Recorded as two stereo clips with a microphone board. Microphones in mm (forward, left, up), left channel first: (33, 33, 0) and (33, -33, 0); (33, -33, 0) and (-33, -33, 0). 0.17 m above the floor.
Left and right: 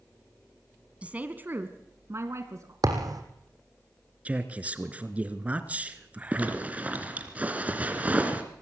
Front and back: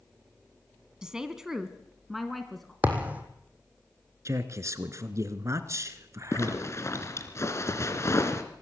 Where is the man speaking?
155° right, 1.9 m.